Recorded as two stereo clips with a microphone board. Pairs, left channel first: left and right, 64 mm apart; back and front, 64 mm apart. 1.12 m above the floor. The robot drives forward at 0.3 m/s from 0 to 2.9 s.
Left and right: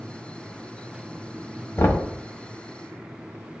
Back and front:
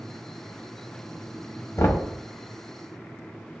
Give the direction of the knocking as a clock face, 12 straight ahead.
7 o'clock.